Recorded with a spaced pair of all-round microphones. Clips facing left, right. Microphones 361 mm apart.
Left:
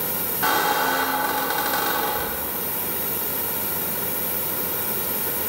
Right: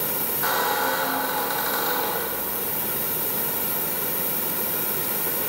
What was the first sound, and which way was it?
A squeak, 80° left.